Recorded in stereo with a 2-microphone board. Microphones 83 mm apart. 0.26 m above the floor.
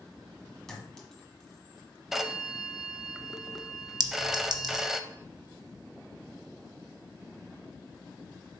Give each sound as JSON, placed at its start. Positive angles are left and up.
{"t": 0.7, "sound": "a clink", "side_deg": 5, "distance_m": 1.4}
{"t": 2.1, "sound": "a phone ringing", "side_deg": -5, "distance_m": 0.5}
{"t": 4.0, "sound": "a clink", "side_deg": -50, "distance_m": 0.9}